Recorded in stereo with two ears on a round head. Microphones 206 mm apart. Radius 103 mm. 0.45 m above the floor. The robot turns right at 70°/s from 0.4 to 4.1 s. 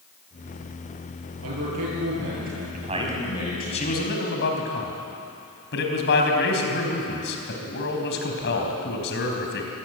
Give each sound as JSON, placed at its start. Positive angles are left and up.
{"t": 1.4, "sound": "a man speaking", "azimuth_deg": -115, "distance_m": 10.0}
{"t": 2.7, "sound": "a man speaking", "azimuth_deg": -40, "distance_m": 4.0}